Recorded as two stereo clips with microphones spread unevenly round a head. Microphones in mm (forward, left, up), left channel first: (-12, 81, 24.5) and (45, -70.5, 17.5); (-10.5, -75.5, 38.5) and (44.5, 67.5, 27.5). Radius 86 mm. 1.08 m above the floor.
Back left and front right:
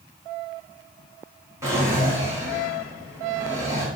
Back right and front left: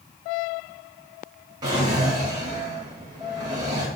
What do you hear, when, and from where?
1.6 s a drawer: 5° left, 3 m